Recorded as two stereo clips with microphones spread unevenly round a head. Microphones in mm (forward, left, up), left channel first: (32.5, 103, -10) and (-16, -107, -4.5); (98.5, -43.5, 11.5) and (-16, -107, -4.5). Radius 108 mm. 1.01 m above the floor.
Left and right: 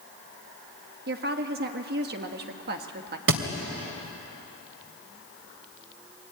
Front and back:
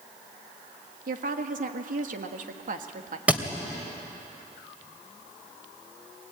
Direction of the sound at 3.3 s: 70° right.